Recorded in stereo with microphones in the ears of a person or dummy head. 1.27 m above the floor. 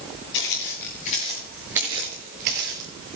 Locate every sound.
0.3 s footsteps: 50° left (ahead or behind), 2.0 m; by 2.9 s 55° right (ahead or behind), 2 m